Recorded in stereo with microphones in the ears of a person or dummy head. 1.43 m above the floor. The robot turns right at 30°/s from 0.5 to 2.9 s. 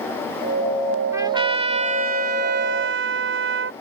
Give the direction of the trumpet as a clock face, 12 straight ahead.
5 o'clock.